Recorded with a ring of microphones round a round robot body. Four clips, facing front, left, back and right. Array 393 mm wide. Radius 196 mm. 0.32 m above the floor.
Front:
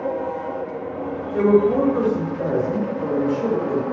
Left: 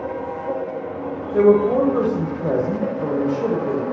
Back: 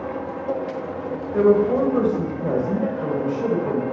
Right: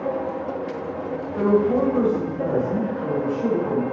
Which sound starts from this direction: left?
A woman speaking, at 1.3 s.